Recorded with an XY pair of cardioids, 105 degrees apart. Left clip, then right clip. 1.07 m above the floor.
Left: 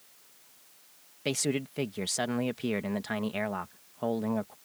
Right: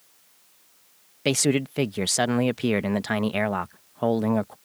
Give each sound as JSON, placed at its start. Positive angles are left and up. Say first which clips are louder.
{"t": 1.2, "sound": "a man speaking", "louder": "right 8 dB", "azimuth_deg": -55}